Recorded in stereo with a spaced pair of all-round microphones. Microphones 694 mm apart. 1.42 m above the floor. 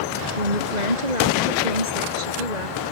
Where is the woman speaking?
80° right; by 2.8 s 75° right (ahead or behind).